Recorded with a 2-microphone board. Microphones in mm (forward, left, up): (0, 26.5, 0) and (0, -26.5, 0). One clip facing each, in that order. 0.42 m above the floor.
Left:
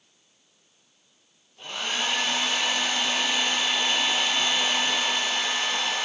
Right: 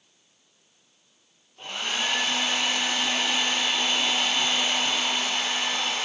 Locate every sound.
1.6 s a hair dryer: 15° right (ahead or behind), 8 m